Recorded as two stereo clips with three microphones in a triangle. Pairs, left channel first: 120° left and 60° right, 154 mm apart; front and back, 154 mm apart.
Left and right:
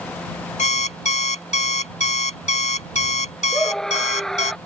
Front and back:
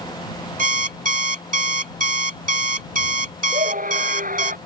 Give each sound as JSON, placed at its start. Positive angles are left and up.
{"t": 0.6, "sound": "an alarm clock", "azimuth_deg": 155}
{"t": 3.5, "sound": "a scream", "azimuth_deg": -155}